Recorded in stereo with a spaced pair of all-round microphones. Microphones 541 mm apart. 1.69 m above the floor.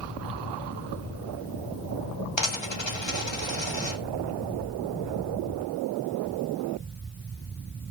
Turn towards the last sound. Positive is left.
turn(degrees=50)  # may be behind; listen again after turning